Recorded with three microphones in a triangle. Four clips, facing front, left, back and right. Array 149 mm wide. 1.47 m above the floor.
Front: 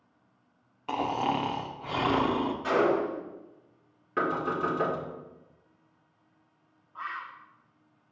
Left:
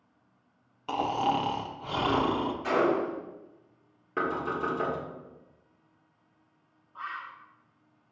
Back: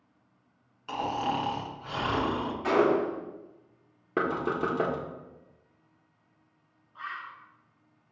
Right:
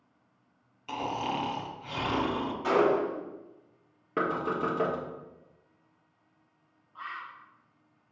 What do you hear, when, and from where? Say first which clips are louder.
0.9 s snoring: left 5 dB, front 2 dB; 45° left, 0.8 m
2.6 s a gunshot: right 2 dB, back 2 dB; 140° right, 2.0 m
4.2 s knocking: right 1 dB, even; 150° right, 1.5 m
7.0 s a bird: left 2 dB, front 2 dB; 30° left, 1.0 m